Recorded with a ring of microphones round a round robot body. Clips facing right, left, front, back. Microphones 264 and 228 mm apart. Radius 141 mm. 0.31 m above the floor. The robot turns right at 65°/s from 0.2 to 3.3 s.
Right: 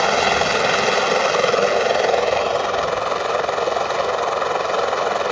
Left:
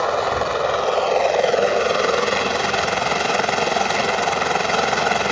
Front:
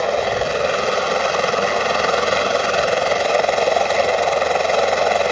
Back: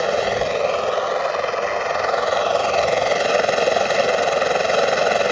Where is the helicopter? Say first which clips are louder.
Right 2 dB, even; 100° right; by 5.3 s 100° left.